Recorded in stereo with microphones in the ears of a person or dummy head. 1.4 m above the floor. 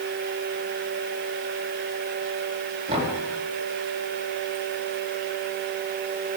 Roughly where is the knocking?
Right.